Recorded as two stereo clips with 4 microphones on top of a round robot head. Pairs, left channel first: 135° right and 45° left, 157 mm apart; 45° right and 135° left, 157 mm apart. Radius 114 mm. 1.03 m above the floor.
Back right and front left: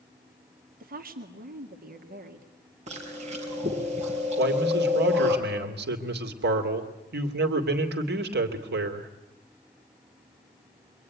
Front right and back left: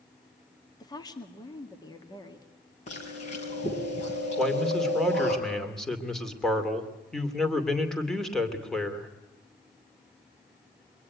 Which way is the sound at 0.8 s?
20° left.